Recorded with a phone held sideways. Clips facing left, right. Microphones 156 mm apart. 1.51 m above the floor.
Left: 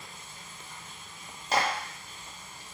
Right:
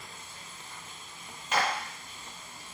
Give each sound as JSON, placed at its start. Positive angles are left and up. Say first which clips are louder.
{"t": 0.0, "sound": "running water", "louder": "even", "side_deg": -35, "distance_m": 1.7}
{"t": 1.5, "sound": "a clap", "louder": "left 1 dB", "side_deg": 35, "distance_m": 0.6}